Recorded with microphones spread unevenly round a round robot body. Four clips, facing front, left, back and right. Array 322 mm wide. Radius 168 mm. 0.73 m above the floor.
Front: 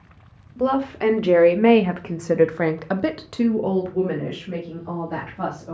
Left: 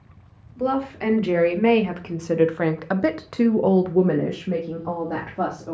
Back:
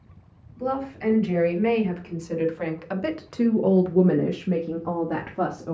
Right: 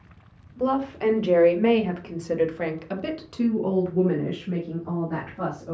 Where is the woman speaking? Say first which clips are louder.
Even, front 7 dB; straight ahead, 1.6 m; by 5.7 s 165° left, 1.4 m.